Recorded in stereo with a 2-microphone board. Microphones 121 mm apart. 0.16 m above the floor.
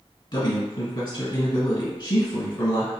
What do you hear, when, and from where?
0.3 s a man speaking: 40° left (ahead or behind), 1.5 m